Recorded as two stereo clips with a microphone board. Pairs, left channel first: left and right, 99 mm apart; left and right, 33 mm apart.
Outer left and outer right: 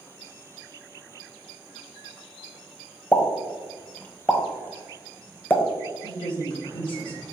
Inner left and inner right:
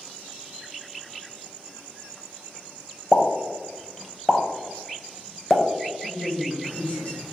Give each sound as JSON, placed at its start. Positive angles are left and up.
{"t": 3.1, "sound": "a pop", "side_deg": 15, "distance_m": 0.6}
{"t": 6.0, "sound": "a woman speaking", "side_deg": 50, "distance_m": 1.3}